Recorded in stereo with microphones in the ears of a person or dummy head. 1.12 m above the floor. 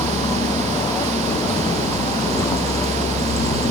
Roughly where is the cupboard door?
No cupboard door in this recording.